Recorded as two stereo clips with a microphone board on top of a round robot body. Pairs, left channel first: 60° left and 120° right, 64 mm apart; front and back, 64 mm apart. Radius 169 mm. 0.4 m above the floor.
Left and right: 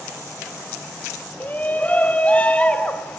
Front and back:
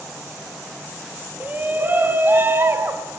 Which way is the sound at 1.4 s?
120° left.